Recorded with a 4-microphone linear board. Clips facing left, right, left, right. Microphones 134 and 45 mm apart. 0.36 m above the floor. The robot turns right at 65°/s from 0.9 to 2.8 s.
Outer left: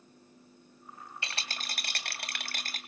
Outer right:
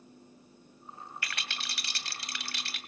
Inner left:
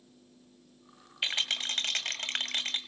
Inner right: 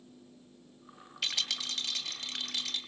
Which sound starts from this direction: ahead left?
A rattle, at 1.2 s.